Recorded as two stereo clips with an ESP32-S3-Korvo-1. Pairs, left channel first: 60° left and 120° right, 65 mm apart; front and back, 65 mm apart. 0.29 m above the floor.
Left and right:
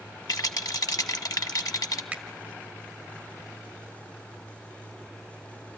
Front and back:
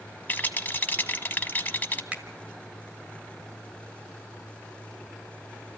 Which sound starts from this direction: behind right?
A finger snap, at 2.1 s.